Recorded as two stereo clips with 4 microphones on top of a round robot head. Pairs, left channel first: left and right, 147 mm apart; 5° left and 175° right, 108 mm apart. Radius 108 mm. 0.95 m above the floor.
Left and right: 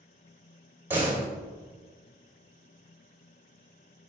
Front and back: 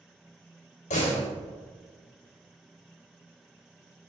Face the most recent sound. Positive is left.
turn(degrees=-15)